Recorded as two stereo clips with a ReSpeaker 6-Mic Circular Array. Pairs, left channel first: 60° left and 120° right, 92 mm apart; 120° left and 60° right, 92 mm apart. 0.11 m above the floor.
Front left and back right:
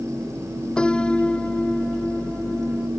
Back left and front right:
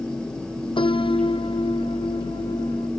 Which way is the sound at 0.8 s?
140° left.